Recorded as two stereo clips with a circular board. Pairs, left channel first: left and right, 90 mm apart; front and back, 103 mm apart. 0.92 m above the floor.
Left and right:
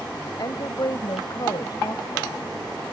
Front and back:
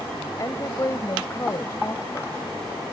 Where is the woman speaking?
55° left.